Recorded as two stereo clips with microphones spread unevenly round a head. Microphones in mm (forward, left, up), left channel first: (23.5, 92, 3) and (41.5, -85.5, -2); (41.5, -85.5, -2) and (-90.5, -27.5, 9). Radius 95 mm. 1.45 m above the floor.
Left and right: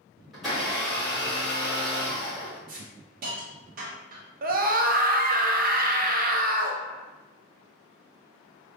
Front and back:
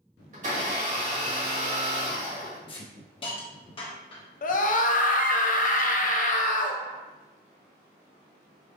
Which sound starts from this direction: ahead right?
A scream, at 4.4 s.